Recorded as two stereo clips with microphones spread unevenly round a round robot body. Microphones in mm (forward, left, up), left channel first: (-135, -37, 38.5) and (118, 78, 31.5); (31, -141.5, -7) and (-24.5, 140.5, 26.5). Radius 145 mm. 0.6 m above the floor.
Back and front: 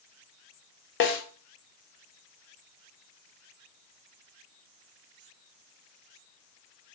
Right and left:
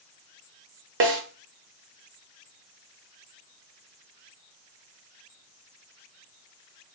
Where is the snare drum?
155° left, 0.8 m.